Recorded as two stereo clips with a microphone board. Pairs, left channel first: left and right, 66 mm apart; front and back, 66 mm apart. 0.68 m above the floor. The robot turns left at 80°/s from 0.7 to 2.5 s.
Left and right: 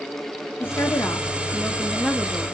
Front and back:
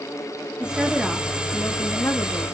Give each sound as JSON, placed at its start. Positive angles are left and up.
{"t": 0.6, "sound": "a woman speaking", "azimuth_deg": 115, "distance_m": 0.6}